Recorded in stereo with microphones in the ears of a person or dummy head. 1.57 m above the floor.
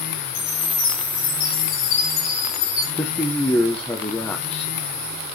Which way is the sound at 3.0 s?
5° left (ahead or behind).